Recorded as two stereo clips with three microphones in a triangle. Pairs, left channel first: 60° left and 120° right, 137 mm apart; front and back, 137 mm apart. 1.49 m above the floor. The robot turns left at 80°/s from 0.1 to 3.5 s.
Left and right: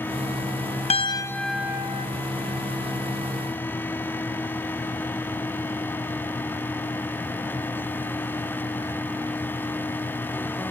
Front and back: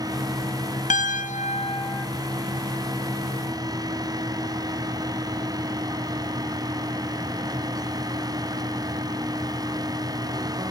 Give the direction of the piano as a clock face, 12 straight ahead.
11 o'clock.